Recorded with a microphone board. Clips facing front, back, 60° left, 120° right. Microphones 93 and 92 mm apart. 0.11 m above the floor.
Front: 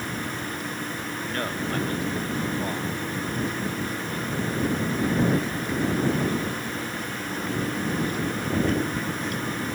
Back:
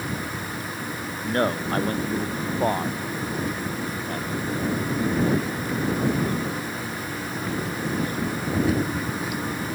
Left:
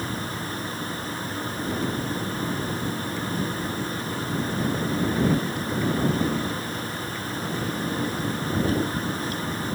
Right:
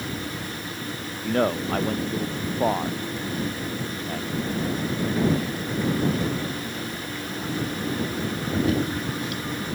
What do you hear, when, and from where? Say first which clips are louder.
1.2 s a man speaking: back 7 dB, right 11 dB; 125° right; by 4.3 s 140° right